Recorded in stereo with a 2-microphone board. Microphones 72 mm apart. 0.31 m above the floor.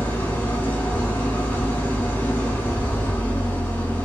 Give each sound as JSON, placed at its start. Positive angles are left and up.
{"t": 0.0, "sound": "an engine running", "side_deg": 25, "distance_m": 0.7}